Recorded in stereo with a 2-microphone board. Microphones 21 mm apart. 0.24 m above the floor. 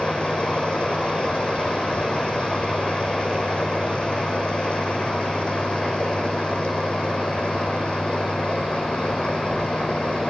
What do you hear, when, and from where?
0.0 s running water: 80° left, 4 m